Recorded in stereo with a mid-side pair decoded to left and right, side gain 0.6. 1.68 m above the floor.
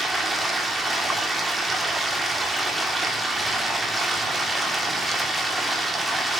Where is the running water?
20° right, 3 m.